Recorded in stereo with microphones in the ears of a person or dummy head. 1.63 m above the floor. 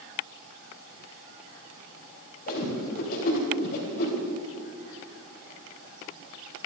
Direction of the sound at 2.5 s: 50° left (ahead or behind).